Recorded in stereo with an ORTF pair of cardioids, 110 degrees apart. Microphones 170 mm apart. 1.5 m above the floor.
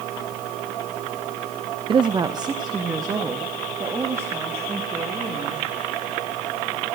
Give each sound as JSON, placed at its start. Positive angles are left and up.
{"t": 1.9, "sound": "a woman speaking", "azimuth_deg": -30, "distance_m": 0.5}